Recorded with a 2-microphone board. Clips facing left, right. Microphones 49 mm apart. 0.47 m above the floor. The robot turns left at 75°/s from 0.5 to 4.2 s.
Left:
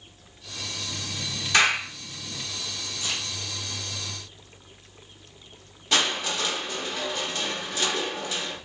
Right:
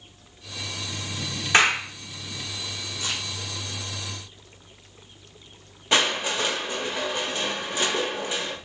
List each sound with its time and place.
1.5 s a clap: 30° right (ahead or behind), 0.8 m
3.0 s a crack: 40° right (ahead or behind), 1.3 m; by 3.2 s 30° right (ahead or behind), 1.3 m
5.9 s crushing: 20° right (ahead or behind), 0.6 m